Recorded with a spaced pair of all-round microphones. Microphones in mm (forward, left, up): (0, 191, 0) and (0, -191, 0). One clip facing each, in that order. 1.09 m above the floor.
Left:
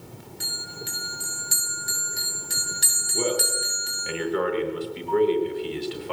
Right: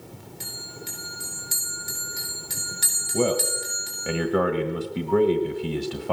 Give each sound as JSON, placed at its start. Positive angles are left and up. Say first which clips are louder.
{"t": 0.4, "sound": "a bell", "louder": "left 2 dB", "side_deg": 20, "distance_m": 7.0}
{"t": 3.1, "sound": "a man speaking", "louder": "right 3 dB", "side_deg": -60, "distance_m": 1.4}